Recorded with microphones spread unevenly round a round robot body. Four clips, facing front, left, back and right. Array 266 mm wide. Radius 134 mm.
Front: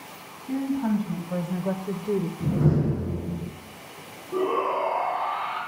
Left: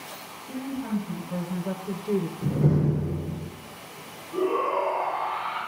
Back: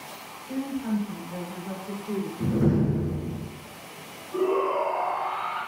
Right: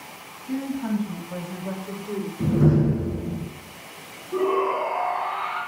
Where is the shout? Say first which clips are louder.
Right 2 dB, back 1 dB; 30° right, 3.5 m.